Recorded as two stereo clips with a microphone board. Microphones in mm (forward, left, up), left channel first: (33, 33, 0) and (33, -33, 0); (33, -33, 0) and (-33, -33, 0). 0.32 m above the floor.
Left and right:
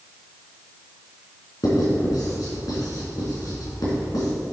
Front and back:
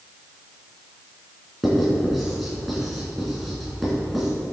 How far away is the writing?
About 3 m.